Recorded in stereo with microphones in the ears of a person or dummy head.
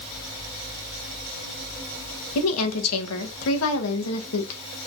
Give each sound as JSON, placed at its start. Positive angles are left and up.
{"t": 2.4, "sound": "a woman speaking", "side_deg": 85, "distance_m": 2.5}